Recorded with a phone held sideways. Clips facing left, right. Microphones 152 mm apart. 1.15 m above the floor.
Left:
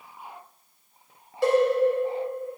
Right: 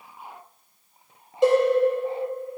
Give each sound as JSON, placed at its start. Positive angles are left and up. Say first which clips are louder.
{"t": 1.4, "sound": "a cowbell", "louder": "right 3 dB", "side_deg": -20, "distance_m": 3.0}